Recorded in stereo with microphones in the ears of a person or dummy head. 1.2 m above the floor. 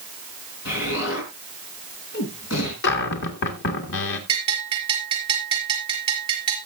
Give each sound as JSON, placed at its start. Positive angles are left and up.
{"t": 0.7, "sound": "an explosion", "side_deg": 65, "distance_m": 4.0}
{"t": 2.8, "sound": "a cupboard door", "side_deg": 60, "distance_m": 2.0}
{"t": 4.3, "sound": "a bell", "side_deg": -25, "distance_m": 4.5}